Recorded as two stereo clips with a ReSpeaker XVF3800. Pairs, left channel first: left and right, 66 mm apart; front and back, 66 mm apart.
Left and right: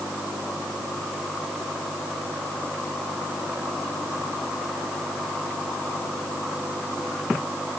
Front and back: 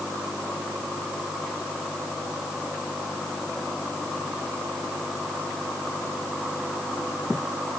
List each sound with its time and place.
Only background noise.